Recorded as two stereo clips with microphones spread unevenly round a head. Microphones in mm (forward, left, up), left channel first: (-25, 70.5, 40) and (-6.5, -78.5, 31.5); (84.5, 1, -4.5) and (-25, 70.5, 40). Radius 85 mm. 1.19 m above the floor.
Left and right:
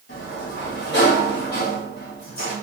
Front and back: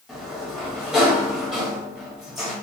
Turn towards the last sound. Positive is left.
turn(degrees=65)